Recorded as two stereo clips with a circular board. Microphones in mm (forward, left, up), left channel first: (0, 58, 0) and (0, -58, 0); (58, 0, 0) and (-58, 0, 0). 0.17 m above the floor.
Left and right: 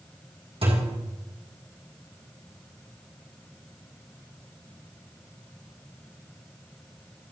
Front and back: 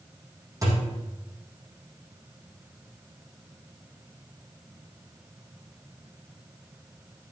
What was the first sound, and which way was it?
A thud, 120° right.